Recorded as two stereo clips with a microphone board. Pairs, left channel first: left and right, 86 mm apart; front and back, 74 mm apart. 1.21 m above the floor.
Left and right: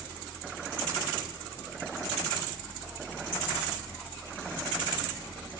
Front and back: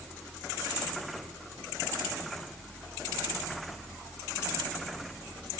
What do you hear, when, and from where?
Only background noise.